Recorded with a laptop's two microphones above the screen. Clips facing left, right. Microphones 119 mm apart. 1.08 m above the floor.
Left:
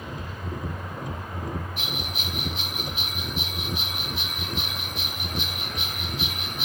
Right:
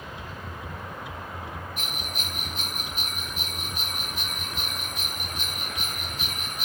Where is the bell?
45° right (ahead or behind).